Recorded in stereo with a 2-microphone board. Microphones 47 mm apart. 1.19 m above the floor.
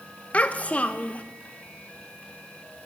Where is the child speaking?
30° left (ahead or behind), 0.5 m.